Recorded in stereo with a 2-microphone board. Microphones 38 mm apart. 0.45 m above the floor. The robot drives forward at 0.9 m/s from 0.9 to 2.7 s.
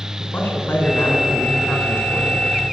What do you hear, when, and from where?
0.2 s a man speaking: 65° left (ahead or behind), 4.5 m; by 2.5 s 80° left, 4 m